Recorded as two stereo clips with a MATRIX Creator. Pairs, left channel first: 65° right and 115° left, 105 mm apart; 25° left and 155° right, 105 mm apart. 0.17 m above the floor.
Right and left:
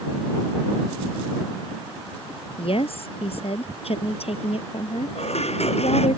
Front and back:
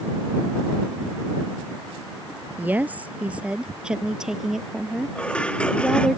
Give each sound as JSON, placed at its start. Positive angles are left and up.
{"t": 2.6, "sound": "a woman speaking", "azimuth_deg": -85}
{"t": 5.2, "sound": "dishes clattering", "azimuth_deg": -55}